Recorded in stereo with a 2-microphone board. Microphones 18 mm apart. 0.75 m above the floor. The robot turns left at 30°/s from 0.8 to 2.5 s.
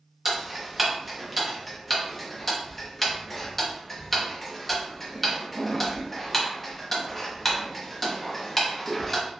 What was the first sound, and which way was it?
Ticking, 15° right (ahead or behind).